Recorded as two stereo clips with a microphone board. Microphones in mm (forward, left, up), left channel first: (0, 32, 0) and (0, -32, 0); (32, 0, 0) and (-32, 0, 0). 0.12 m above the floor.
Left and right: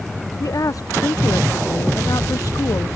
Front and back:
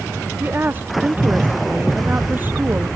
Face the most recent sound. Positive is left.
turn(degrees=120)